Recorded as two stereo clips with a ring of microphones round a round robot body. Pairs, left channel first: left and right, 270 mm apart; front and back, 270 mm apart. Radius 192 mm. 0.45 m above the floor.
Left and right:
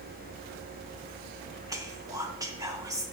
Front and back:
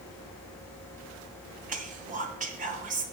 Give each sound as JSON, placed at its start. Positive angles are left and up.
{"t": 1.7, "sound": "whispering", "azimuth_deg": -155, "distance_m": 0.8}